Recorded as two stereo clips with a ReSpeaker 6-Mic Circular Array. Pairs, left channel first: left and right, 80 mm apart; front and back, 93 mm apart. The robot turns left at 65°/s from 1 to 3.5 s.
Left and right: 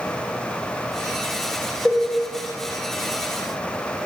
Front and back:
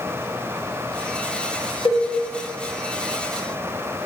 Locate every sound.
1.9 s a cowbell: 20° left, 0.9 m; by 2.1 s 5° left, 0.9 m